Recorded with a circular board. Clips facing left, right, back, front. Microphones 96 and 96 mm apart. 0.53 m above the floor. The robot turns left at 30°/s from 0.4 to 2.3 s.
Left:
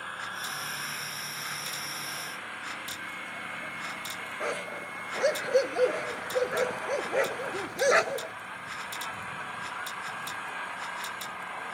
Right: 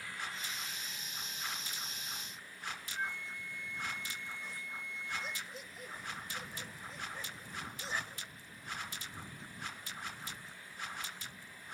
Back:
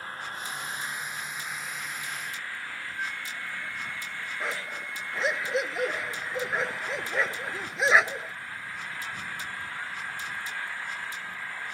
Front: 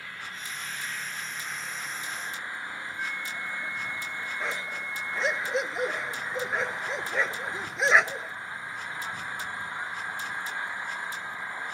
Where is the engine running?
130° left; by 11.8 s 70° left.